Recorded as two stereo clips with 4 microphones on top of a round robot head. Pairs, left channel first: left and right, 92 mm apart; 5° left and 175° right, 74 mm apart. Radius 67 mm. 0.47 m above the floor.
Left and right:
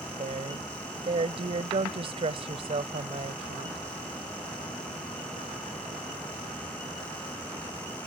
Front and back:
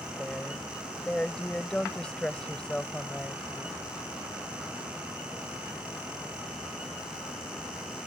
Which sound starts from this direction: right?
A woman speaking, at 0.2 s.